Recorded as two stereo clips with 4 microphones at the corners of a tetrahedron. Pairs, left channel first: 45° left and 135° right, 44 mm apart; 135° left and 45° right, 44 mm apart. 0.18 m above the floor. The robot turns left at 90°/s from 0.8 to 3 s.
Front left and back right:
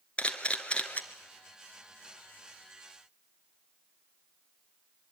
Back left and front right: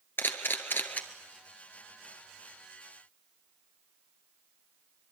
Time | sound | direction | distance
0.2 | a camera shutter | 105° left | 1.7 m